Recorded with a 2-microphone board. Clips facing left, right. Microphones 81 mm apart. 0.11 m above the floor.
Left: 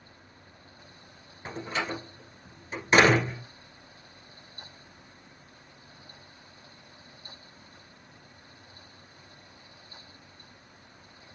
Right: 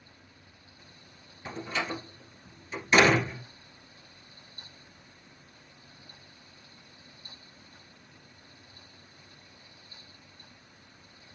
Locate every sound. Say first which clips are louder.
1.4 s a door slam: left 1 dB; 35° left (ahead or behind), 1.3 m